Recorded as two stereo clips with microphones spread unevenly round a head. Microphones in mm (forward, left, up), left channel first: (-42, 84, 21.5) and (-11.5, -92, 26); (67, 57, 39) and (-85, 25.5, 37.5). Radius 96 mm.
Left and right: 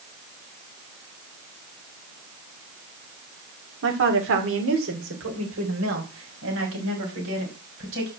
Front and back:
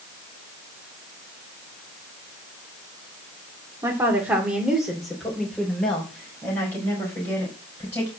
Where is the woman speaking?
95° right, 2.5 m; by 8.1 s 65° right, 6.5 m.